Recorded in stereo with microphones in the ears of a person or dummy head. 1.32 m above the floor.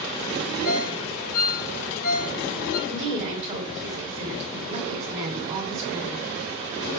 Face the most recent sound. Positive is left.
turn(degrees=-35)  # may be behind; listen again after turning